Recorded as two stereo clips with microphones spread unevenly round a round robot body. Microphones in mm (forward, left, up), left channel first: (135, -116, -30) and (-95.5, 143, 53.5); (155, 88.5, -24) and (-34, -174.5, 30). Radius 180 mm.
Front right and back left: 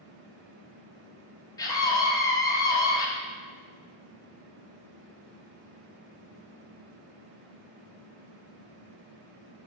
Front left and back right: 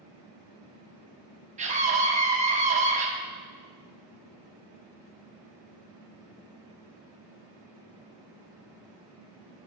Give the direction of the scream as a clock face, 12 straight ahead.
2 o'clock.